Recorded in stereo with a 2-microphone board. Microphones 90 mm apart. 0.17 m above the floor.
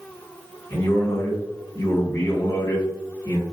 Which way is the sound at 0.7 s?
45° left (ahead or behind).